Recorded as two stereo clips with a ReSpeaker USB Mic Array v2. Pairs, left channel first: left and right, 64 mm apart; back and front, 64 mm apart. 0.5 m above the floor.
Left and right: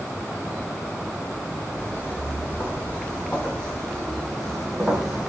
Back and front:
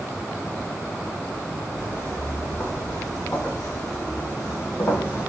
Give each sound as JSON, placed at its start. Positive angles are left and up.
{"t": 1.8, "sound": "footsteps", "azimuth_deg": 145, "distance_m": 6.5}